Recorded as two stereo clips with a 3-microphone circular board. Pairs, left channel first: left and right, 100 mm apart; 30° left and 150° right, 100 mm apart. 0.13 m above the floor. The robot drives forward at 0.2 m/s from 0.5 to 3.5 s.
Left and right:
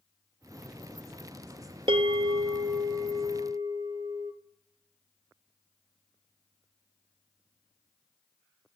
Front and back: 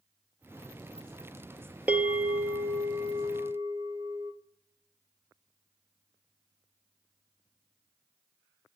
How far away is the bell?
About 0.7 m.